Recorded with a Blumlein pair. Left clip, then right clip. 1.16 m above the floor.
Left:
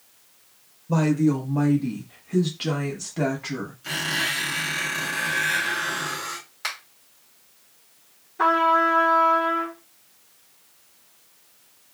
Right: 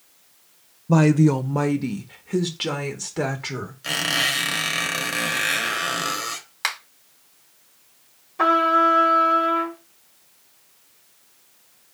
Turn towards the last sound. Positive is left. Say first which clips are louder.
# right 2 dB
turn(degrees=-70)